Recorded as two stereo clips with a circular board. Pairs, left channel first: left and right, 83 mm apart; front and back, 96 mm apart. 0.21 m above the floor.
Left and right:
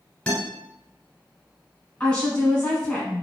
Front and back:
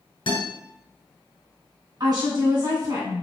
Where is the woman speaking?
160° left, 1.6 m.